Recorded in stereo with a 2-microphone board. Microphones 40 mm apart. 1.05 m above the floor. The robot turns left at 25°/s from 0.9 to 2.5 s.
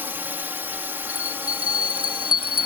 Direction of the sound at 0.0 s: 70° right.